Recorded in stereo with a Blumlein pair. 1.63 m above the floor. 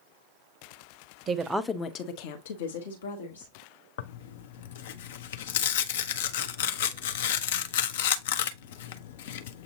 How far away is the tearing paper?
About 0.5 m.